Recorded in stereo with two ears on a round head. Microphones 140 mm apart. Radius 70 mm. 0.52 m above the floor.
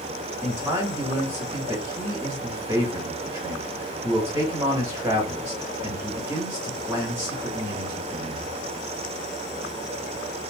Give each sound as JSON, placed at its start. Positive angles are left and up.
{"t": 0.4, "sound": "a man speaking", "side_deg": -15, "distance_m": 1.1}